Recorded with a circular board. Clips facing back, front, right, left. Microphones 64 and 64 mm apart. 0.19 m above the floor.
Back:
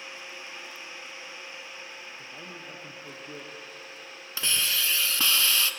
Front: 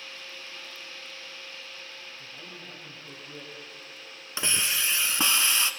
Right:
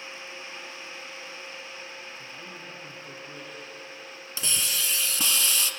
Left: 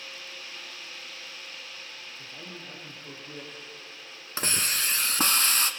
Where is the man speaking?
160° left, 6 m.